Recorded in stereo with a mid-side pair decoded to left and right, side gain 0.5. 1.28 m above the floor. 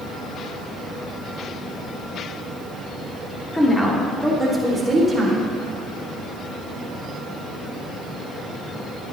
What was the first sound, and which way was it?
A woman speaking, 10° left.